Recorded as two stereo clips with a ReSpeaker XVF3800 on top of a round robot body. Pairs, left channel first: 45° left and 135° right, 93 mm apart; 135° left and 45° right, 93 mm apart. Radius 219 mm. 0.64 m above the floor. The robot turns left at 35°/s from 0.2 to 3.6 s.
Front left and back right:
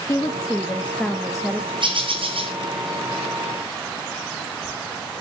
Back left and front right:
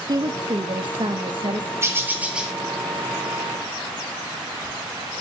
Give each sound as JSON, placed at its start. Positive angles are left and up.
{"t": 0.1, "sound": "a woman speaking", "azimuth_deg": -5, "distance_m": 1.6}
{"t": 1.8, "sound": "a bird", "azimuth_deg": -105, "distance_m": 3.5}